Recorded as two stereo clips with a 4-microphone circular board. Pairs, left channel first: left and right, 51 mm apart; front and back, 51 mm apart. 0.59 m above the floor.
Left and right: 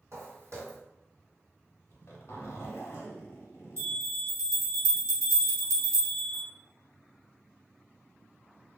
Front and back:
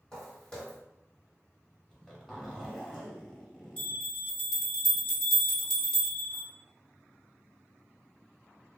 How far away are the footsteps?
About 1.5 m.